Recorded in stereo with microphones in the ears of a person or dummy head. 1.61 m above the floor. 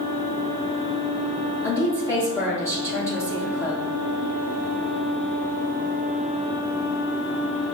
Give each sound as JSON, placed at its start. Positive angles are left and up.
{"t": 1.6, "sound": "a woman speaking", "side_deg": 15, "distance_m": 1.2}